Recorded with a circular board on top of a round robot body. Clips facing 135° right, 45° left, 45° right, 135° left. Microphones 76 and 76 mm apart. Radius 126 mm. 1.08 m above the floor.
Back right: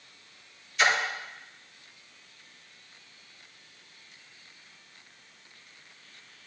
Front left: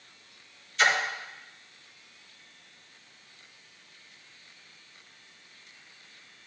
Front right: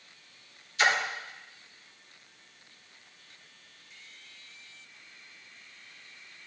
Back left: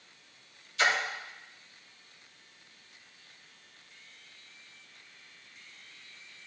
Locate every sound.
0.8 s a splash: 140° left, 2.5 m